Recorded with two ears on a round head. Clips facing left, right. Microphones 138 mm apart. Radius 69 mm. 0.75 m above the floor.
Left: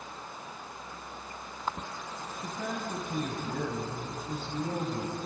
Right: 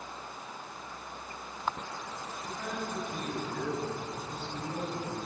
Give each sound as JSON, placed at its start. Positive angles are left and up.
{"t": 2.4, "sound": "a man speaking", "side_deg": 80, "distance_m": 6.0}